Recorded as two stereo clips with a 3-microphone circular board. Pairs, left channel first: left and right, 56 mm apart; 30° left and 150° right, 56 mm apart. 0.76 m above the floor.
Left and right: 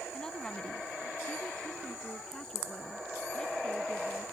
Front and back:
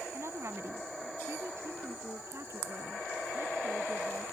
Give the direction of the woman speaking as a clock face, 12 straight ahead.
6 o'clock.